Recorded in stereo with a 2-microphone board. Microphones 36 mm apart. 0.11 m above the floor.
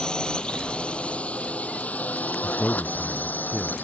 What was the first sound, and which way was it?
A drone, 20° left (ahead or behind).